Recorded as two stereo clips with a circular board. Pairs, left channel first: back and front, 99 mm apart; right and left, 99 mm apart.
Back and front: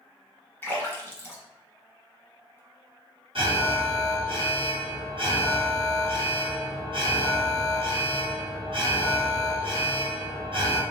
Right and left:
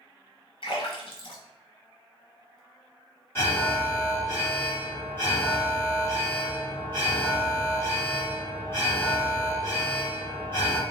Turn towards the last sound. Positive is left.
turn(degrees=-25)